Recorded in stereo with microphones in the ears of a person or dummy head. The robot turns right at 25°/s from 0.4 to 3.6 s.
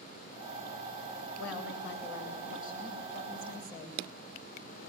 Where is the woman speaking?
105° left, 7 m; by 4.0 s 160° left, 7 m.